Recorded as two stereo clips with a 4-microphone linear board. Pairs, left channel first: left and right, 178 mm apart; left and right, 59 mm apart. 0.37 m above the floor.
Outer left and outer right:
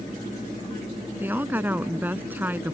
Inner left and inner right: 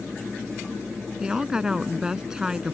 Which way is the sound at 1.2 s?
10° right (ahead or behind).